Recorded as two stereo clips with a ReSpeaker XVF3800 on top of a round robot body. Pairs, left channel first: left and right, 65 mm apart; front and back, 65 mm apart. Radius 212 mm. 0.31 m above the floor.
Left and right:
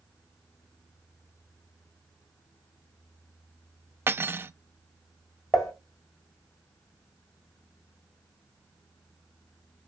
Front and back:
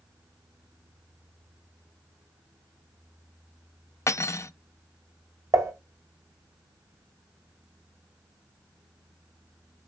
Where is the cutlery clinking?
40° right, 0.5 m.